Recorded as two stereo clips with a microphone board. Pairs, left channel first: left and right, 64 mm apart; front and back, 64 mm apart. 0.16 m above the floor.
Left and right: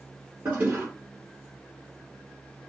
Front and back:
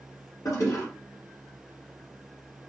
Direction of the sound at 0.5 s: 35° right.